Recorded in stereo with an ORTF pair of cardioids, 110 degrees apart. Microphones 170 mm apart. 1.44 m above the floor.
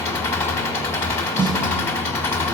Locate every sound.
0.0 s an engine running: 15° left, 1.6 m
1.4 s a snare drum: 25° right, 0.8 m